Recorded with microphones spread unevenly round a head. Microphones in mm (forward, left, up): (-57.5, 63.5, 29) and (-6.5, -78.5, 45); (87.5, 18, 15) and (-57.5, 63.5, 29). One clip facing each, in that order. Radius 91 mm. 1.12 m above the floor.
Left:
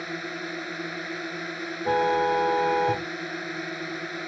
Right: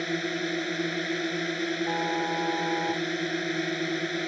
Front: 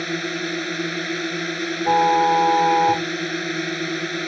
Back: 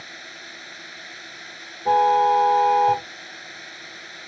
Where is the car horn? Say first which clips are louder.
Left 6 dB, even; 70° left.